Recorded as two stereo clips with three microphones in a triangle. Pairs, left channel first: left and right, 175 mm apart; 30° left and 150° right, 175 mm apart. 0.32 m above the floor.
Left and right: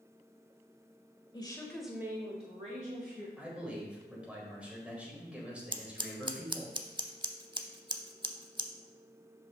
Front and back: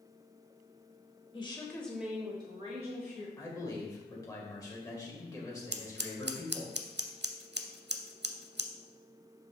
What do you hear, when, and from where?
1.3 s a woman speaking: 55° left, 1.2 m; by 3.3 s 115° right, 2.0 m
3.4 s a man speaking: 15° right, 1.6 m
5.7 s scissors: 155° right, 0.6 m